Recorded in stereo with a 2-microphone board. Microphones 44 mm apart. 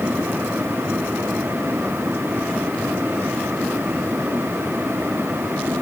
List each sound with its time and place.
Only background noise.